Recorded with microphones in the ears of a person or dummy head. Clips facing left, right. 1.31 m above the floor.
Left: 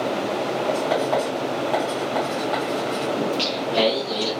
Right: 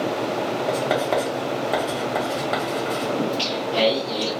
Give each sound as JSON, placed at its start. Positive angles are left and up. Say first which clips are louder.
{"t": 0.7, "sound": "writing", "louder": "left 1 dB", "side_deg": -30, "distance_m": 0.7}
{"t": 3.2, "sound": "singing", "louder": "even", "side_deg": 20, "distance_m": 1.5}